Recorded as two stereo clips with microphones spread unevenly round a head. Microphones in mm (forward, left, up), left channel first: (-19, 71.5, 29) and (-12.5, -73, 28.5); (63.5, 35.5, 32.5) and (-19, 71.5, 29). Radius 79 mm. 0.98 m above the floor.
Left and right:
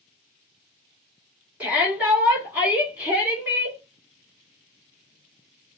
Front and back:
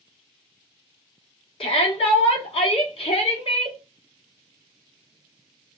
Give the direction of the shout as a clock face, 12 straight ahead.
12 o'clock.